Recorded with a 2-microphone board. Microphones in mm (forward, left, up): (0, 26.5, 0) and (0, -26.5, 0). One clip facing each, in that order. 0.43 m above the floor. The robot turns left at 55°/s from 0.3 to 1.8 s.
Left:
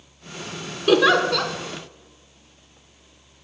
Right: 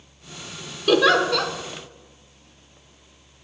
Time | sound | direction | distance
0.9 | a giggle | 10° left (ahead or behind) | 0.6 m